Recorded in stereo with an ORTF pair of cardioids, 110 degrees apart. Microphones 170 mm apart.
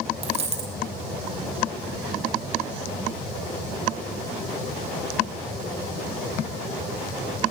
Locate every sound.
0.2 s a dropped coin: 40° right, 4 m